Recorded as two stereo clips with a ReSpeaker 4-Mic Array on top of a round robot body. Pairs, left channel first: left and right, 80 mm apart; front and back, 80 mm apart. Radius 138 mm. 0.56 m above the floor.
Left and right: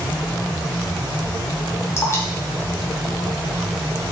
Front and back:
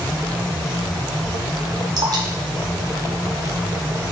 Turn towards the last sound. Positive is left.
turn(degrees=145)